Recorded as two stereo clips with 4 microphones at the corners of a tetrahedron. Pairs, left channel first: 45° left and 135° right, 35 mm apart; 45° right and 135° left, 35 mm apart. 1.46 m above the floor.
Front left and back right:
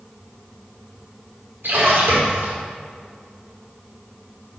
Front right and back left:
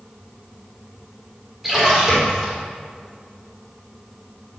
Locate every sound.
1.6 s a splash: 145° right, 4.5 m